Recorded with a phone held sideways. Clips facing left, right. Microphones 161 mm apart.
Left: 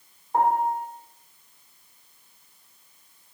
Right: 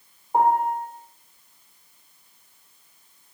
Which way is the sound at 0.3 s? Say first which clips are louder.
Right 2 dB; 15° right (ahead or behind).